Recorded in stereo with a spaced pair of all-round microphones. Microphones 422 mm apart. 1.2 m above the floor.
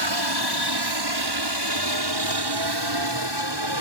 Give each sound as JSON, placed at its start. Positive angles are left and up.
{"t": 0.0, "sound": "a helicopter", "side_deg": -65}